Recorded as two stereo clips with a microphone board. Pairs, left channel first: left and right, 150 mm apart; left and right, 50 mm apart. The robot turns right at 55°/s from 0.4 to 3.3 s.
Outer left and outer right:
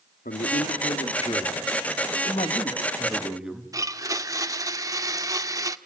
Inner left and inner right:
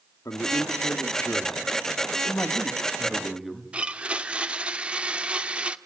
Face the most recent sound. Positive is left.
turn(degrees=-25)  # may be behind; listen again after turning